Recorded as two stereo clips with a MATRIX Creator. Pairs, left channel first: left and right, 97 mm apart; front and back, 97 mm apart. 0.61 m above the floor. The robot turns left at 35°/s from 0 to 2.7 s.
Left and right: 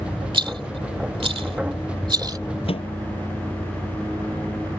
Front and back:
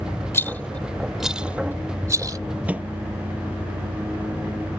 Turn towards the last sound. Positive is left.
turn(degrees=105)